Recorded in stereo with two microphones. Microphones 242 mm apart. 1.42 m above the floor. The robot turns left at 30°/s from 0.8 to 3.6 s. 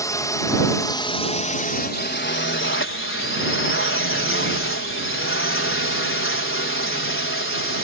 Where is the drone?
165° left; by 7.8 s 80° left.